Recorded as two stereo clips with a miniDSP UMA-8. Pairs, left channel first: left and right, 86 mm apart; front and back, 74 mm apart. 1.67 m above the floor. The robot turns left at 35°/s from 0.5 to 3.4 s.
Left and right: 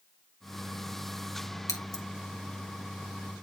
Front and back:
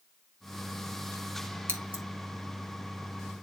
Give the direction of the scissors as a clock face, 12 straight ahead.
8 o'clock.